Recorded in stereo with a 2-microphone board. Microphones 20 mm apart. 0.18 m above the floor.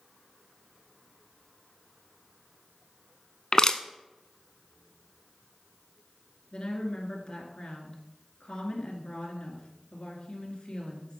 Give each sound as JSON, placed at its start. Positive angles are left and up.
{"t": 3.5, "sound": "crushing", "side_deg": 40, "distance_m": 0.5}
{"t": 6.5, "sound": "a woman speaking", "side_deg": 45, "distance_m": 2.5}